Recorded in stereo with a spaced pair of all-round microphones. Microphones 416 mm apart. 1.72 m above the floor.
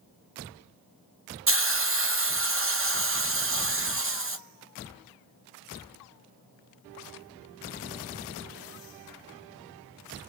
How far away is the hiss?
About 0.7 m.